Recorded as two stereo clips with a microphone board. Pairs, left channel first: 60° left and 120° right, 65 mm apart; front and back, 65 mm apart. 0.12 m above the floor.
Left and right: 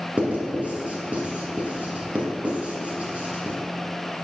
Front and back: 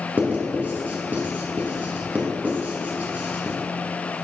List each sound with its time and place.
0.2 s writing: 165° right, 1.9 m